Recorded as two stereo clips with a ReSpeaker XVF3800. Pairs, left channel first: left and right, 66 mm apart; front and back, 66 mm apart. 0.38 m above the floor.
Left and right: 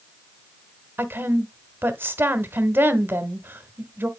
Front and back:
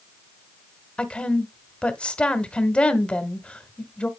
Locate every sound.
1.0 s a woman speaking: 60° right, 1.1 m